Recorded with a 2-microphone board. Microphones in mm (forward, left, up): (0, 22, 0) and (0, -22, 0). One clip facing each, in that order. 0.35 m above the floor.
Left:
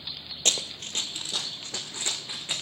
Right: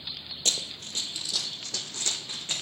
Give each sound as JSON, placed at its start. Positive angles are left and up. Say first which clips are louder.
{"t": 0.5, "sound": "running footsteps", "louder": "left 3 dB", "side_deg": 55, "distance_m": 0.6}